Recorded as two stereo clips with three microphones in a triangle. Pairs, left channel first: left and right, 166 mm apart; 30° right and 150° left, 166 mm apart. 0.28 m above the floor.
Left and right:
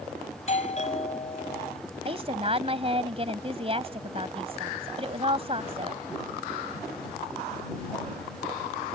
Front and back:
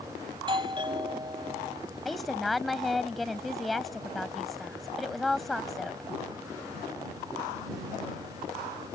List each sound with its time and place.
0.3 s a doorbell: 105° left
2.0 s a woman speaking: 120° right